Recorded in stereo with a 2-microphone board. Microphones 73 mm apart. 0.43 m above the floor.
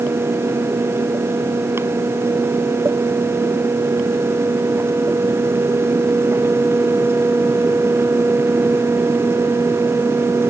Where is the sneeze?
No sneeze in this recording.